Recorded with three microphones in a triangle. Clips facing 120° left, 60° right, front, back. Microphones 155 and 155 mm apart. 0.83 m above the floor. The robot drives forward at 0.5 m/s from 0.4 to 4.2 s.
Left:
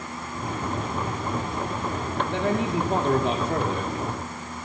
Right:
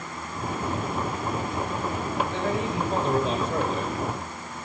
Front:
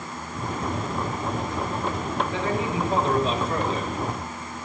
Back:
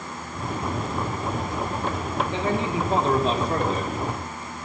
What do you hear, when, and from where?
2.3 s a man speaking: 115° left, 1.9 m; by 3.9 s 135° left, 2.5 m